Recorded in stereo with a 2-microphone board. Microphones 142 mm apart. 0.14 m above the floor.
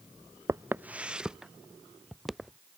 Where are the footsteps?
20° right (ahead or behind); by 2.6 s centre (ahead or behind).